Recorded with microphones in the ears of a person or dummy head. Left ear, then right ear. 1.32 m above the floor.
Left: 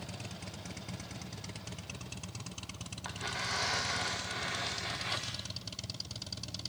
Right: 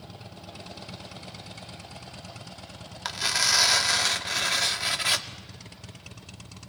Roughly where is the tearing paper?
Right.